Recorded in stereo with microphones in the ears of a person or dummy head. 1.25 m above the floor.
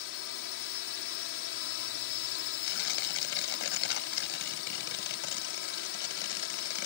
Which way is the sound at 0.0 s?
75° left (ahead or behind).